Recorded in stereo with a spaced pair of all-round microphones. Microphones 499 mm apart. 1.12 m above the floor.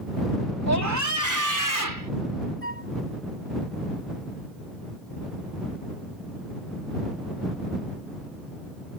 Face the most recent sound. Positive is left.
turn(degrees=25)  # may be behind; listen again after turning